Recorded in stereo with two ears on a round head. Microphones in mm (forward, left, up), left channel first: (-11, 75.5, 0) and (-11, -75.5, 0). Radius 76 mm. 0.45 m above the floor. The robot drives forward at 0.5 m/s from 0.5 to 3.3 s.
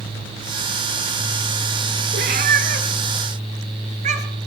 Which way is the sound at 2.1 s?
60° right (ahead or behind).